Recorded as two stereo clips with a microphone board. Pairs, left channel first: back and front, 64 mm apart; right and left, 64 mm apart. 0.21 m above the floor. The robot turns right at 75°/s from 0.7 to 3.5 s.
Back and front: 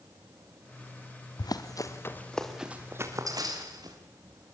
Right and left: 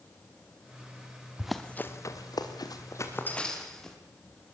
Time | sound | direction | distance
1.4 | running footsteps | 165° left | 1.8 m